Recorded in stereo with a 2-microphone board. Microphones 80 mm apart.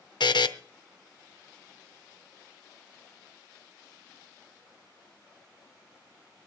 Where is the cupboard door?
No cupboard door in this recording.